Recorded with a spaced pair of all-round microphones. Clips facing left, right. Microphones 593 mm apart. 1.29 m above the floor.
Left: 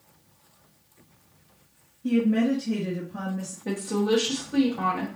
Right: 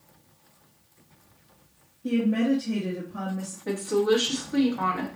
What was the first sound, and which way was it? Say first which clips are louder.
A woman speaking: left 1 dB; 20° left (ahead or behind).